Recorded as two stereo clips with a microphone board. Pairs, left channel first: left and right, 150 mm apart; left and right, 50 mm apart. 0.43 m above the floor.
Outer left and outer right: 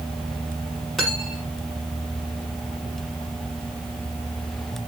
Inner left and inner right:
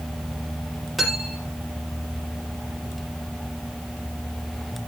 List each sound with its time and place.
1.0 s cutlery clinking: centre (ahead or behind), 6.5 m